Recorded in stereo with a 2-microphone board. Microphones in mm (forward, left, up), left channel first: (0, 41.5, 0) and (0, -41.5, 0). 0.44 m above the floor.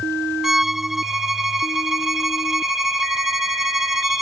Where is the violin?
5° right (ahead or behind).